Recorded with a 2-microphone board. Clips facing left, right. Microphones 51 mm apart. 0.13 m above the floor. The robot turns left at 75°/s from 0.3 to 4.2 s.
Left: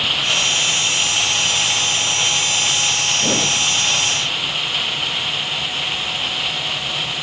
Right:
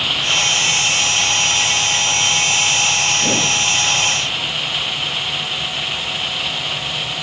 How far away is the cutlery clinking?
I don't hear cutlery clinking.